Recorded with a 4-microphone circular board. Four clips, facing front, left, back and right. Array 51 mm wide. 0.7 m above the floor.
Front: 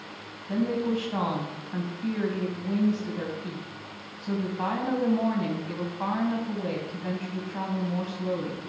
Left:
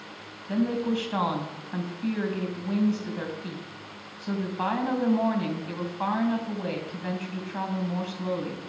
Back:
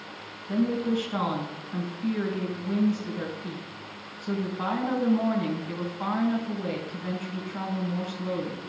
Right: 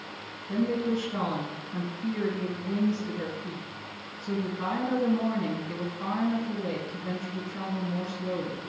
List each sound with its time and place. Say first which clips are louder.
0.5 s a woman speaking: left 1 dB, back 1 dB; 75° left, 4.5 m